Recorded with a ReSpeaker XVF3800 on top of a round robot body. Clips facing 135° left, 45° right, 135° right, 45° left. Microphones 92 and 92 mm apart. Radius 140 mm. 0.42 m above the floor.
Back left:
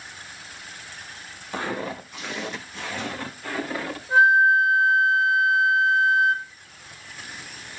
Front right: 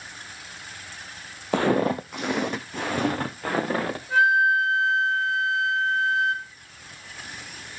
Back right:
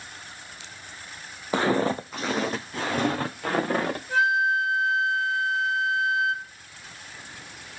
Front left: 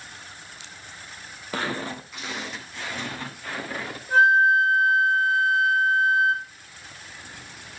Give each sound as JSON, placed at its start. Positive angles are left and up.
{"t": 1.5, "sound": "footsteps", "azimuth_deg": -65, "distance_m": 0.5}
{"t": 4.1, "sound": "a flute", "azimuth_deg": 70, "distance_m": 1.8}